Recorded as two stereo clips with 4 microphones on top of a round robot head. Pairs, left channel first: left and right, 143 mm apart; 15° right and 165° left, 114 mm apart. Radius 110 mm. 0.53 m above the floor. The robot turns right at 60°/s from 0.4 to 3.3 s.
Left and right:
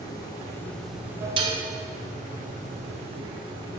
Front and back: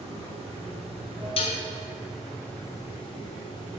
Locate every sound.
0.0 s running water: 150° left, 1.6 m; by 3.8 s 35° right, 1.6 m
1.4 s dishes clattering: 40° right, 0.7 m; by 1.6 s 25° right, 0.7 m